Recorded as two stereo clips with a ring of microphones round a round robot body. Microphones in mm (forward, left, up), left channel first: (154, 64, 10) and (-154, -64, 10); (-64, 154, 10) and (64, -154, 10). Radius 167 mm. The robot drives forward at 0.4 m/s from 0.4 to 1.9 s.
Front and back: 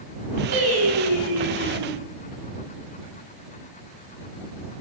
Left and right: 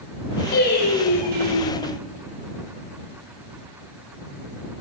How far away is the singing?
About 3.5 m.